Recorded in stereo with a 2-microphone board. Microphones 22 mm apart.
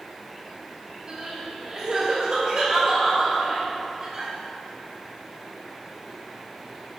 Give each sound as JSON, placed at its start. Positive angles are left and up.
{"t": 1.1, "sound": "crying", "side_deg": -25, "distance_m": 2.0}